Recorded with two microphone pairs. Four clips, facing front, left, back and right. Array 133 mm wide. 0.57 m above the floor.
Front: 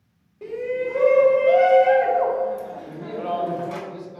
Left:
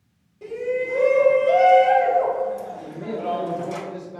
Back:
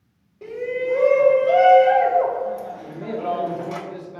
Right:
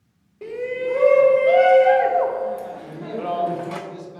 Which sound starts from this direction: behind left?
A man speaking, at 2.8 s.